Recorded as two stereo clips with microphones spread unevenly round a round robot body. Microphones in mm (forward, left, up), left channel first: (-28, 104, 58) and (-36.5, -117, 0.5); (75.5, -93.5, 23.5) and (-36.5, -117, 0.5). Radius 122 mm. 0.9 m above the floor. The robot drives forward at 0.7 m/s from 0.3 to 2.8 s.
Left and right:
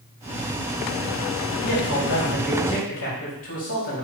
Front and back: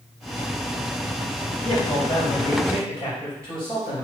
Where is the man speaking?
100° left, 3.5 m; by 4.0 s 115° left, 3.5 m.